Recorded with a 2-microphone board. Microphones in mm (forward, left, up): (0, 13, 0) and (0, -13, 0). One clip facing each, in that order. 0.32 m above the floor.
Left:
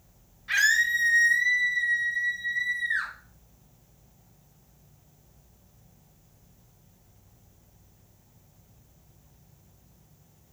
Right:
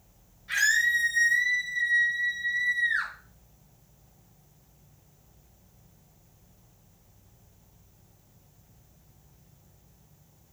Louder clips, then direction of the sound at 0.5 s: Left 1 dB; 30° left (ahead or behind).